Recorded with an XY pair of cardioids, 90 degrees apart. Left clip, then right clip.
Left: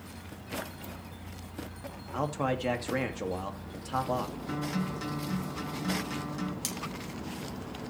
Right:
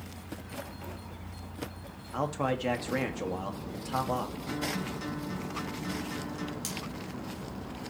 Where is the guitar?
20° left, 7 m.